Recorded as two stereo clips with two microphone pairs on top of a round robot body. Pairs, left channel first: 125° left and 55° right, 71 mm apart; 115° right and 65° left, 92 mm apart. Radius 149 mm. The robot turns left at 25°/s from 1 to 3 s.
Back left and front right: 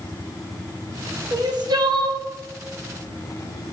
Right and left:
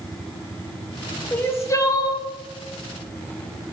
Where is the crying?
50° right, 1.4 m; by 2.2 s 70° right, 1.4 m.